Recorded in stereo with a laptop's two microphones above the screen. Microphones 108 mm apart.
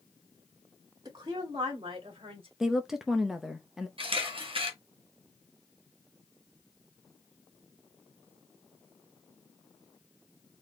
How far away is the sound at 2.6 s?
About 0.6 m.